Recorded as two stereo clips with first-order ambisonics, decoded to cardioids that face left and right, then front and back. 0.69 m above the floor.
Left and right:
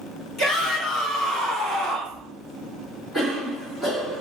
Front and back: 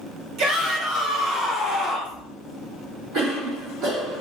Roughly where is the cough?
Behind.